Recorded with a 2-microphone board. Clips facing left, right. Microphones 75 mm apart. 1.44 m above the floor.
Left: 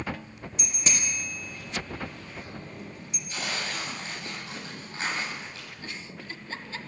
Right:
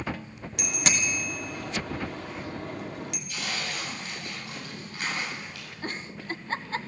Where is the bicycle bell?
75° right (ahead or behind), 2.5 m.